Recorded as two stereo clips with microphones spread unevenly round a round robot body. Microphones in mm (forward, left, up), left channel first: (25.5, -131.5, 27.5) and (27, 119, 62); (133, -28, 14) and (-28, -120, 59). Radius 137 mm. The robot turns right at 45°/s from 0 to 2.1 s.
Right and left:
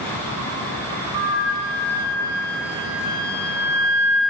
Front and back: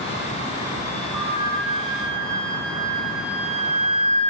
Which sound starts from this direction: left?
A flute, at 1.1 s.